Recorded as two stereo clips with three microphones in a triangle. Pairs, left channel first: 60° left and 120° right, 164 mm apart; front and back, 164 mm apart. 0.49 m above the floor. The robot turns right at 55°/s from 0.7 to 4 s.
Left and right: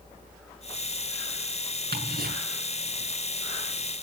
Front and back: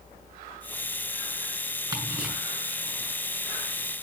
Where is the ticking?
115° right, 6.5 m; by 2.3 s 90° right, 6.5 m.